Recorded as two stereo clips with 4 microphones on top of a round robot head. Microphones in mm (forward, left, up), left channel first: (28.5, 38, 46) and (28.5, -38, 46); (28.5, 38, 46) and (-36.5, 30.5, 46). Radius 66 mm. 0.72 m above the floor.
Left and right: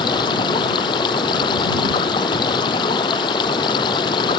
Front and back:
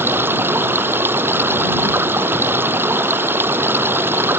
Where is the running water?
130° left.